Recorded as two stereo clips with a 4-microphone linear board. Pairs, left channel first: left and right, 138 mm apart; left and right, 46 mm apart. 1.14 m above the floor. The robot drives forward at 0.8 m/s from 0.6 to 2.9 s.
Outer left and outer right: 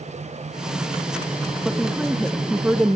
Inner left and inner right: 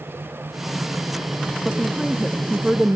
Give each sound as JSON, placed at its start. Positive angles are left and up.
{"t": 1.6, "sound": "a woman speaking", "side_deg": -5, "distance_m": 2.0}